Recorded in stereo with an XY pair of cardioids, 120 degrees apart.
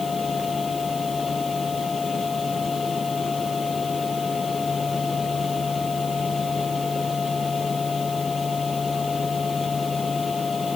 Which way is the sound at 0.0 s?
25° left.